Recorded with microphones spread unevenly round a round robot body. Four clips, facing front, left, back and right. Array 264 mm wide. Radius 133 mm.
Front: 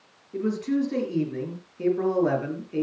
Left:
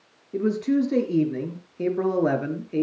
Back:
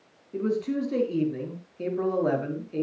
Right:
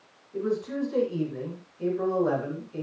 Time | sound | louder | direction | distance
0.3 | a man speaking | left 6 dB, front 1 dB | 100° left | 4.5 m